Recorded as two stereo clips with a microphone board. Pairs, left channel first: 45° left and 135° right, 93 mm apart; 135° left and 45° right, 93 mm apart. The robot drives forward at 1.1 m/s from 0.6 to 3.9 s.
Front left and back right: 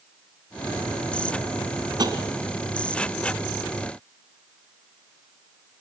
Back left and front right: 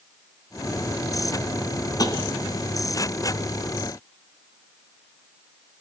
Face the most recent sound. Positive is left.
turn(degrees=180)